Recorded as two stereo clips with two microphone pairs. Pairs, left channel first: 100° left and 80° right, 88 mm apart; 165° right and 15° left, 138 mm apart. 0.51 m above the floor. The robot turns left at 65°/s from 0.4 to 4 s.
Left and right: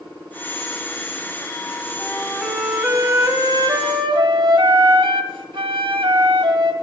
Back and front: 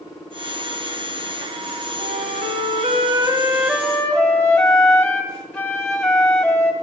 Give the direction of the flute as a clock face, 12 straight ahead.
10 o'clock.